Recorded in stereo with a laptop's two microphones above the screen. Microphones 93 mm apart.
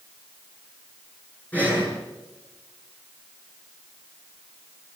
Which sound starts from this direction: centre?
Breathing, at 1.5 s.